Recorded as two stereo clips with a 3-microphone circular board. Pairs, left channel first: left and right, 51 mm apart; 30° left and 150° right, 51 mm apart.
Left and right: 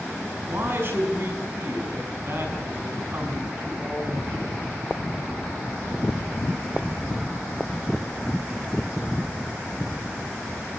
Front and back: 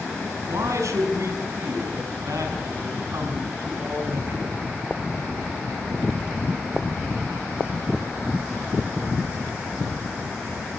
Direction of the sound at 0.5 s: 135° right.